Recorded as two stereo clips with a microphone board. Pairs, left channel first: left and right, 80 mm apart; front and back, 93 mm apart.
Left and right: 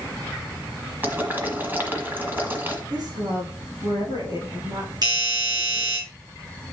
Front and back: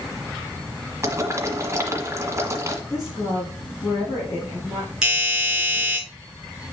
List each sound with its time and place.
1.0 s boiling: 140° right, 1.8 m
2.9 s a woman speaking: 55° right, 4.5 m
5.0 s a doorbell: 95° right, 3.5 m